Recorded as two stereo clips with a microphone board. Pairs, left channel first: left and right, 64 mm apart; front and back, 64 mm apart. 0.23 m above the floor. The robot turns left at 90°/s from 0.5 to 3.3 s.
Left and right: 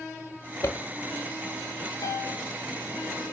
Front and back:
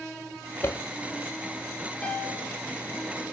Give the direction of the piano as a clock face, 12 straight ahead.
10 o'clock.